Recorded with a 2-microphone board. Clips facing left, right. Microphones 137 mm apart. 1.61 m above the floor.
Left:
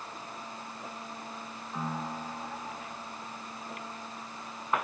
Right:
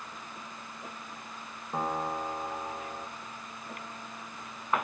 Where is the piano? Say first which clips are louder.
Right 4 dB; 55° right (ahead or behind), 3 m.